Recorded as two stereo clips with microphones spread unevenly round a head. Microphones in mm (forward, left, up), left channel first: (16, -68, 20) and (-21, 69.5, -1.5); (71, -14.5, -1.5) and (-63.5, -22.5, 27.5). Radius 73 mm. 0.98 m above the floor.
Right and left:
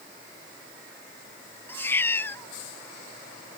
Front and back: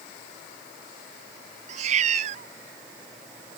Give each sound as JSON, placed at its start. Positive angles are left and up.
{"t": 1.7, "sound": "a cat meowing", "azimuth_deg": -150}